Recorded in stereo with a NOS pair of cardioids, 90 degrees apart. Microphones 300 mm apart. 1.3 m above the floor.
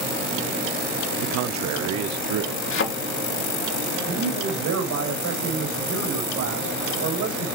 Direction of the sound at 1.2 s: 70° right.